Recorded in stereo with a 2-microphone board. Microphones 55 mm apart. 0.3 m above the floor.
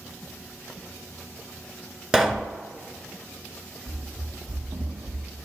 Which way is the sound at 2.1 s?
10° right (ahead or behind).